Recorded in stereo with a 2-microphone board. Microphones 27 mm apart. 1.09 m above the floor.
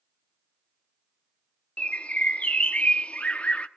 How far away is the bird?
About 0.9 m.